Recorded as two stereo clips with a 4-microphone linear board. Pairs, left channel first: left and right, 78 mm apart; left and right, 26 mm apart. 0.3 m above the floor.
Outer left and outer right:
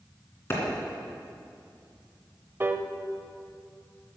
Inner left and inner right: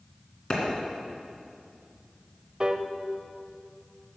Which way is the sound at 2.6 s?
30° right (ahead or behind).